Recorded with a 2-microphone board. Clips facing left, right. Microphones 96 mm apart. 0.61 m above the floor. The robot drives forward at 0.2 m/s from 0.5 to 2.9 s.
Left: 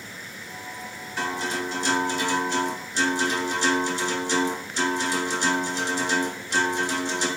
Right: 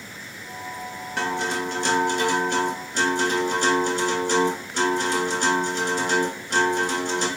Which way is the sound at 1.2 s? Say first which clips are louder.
Right 3 dB; 70° right (ahead or behind).